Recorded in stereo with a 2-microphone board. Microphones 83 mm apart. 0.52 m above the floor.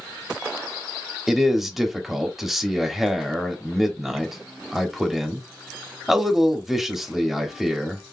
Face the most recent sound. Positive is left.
turn(degrees=-5)  # may be behind; listen again after turning